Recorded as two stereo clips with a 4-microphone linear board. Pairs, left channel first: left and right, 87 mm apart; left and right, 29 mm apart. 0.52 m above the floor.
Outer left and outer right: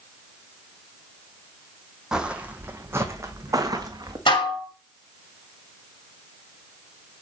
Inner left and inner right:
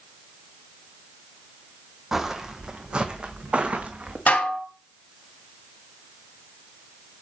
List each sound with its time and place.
2.1 s footsteps: 10° right (ahead or behind), 1.1 m; by 4.2 s 50° right (ahead or behind), 1.7 m
4.3 s dishes clattering: 70° left (ahead or behind), 1.4 m